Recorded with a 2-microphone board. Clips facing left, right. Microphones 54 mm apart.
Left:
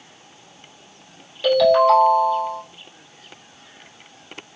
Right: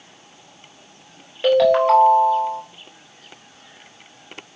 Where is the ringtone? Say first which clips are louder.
Even; 25° right (ahead or behind), 1.2 m.